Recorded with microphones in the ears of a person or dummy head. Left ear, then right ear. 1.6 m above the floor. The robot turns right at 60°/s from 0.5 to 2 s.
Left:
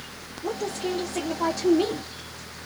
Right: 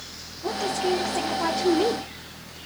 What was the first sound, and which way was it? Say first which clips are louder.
A woman speaking: right 4 dB; 20° right.